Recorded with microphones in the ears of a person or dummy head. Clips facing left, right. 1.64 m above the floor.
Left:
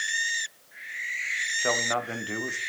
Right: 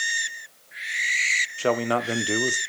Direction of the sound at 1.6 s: 45° right (ahead or behind).